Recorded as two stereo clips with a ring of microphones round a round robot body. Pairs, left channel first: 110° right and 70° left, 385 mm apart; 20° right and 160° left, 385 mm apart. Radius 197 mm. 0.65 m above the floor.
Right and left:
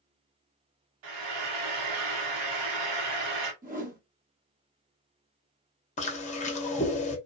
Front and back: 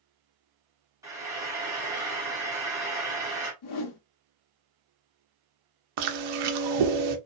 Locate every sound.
1.0 s frying: 75° left, 1.0 m
3.6 s a whoosh: straight ahead, 0.8 m
6.0 s chewing: 175° left, 0.7 m